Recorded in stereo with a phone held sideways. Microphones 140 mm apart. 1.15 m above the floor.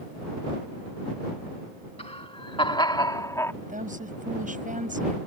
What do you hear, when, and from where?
2.0 s laughter: 45° left (ahead or behind); by 3.5 s 20° left (ahead or behind)
3.6 s a woman speaking: 70° right (ahead or behind)